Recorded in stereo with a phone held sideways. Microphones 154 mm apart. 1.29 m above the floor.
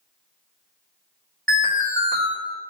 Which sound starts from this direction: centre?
An alarm, at 1.5 s.